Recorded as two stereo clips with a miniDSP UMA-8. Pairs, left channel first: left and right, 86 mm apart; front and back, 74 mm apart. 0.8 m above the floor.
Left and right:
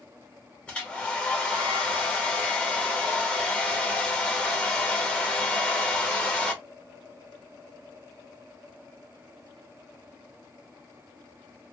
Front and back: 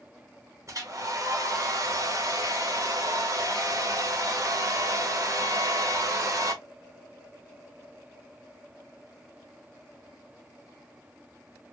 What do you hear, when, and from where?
0.7 s a hair dryer: 165° left, 1.0 m